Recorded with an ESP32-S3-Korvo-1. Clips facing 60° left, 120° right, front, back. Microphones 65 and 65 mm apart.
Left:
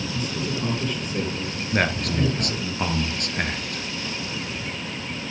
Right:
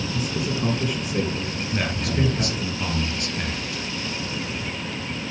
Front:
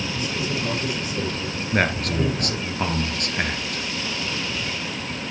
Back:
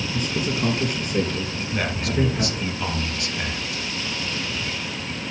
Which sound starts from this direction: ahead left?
A man speaking, at 1.7 s.